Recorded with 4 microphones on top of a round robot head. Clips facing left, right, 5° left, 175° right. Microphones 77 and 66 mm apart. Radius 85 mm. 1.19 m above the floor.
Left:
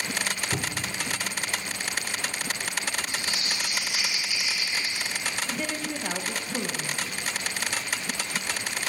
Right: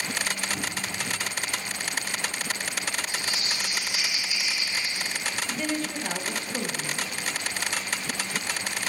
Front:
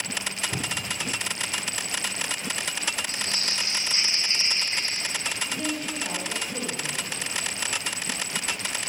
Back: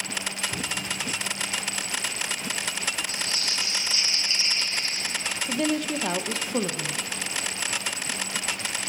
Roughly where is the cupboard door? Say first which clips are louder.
Left 1 dB, even; left.